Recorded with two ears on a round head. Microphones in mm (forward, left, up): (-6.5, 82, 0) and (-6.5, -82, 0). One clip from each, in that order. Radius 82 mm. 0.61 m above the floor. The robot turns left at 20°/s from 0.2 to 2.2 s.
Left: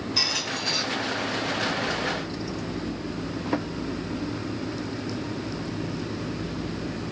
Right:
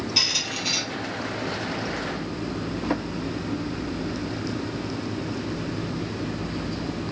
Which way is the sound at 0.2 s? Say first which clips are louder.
Right 2 dB; 30° right (ahead or behind).